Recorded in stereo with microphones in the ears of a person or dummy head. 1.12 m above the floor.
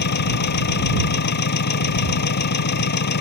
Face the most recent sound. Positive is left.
turn(degrees=60)  # may be behind; listen again after turning